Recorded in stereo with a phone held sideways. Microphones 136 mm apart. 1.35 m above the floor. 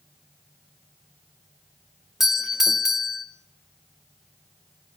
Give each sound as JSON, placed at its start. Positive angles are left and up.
{"t": 2.2, "sound": "a doorbell", "side_deg": -5, "distance_m": 1.9}